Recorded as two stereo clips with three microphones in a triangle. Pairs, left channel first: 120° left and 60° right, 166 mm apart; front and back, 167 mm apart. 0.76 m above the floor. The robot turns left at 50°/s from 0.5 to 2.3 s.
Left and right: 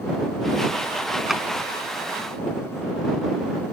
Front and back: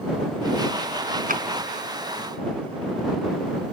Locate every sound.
1.3 s a drawer: 145° right; by 1.4 s 155° right